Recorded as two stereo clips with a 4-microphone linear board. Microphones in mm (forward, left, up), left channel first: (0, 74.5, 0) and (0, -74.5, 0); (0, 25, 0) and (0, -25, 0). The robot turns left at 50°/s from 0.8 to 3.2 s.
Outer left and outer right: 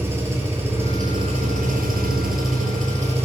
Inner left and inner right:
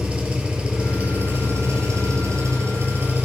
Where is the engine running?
15° right, 6.5 m; by 3.2 s 135° right, 6.5 m.